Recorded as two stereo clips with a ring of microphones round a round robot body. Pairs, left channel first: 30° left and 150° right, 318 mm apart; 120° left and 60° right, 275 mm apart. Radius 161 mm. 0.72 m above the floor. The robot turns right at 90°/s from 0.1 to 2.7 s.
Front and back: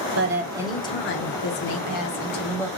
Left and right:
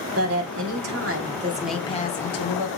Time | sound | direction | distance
0.1 | a woman speaking | 110° right | 2 m